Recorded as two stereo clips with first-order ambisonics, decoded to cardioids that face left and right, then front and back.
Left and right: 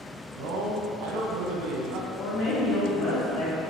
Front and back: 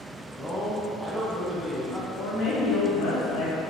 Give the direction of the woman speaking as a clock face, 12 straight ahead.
11 o'clock.